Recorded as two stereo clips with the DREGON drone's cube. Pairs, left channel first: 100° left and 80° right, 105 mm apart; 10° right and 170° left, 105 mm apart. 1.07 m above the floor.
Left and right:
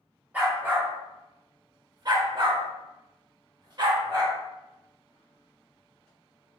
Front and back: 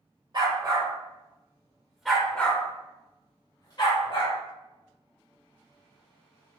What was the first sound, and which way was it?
A dog barking, 150° right.